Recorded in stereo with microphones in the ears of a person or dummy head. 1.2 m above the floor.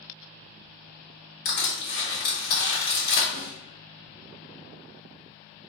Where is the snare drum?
55° right (ahead or behind), 0.9 m.